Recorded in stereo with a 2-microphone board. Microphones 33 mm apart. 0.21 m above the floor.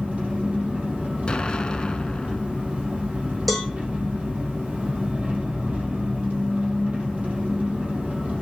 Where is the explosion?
30° left (ahead or behind), 0.8 m.